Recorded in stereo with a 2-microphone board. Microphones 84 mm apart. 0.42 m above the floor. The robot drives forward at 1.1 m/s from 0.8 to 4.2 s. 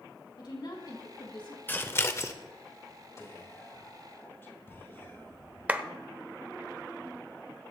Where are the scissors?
25° left (ahead or behind), 1.1 m; by 2.3 s 35° left (ahead or behind), 0.8 m.